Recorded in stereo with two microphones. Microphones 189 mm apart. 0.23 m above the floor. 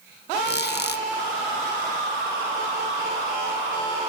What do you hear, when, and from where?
0.5 s a squeak: 55° left (ahead or behind), 0.5 m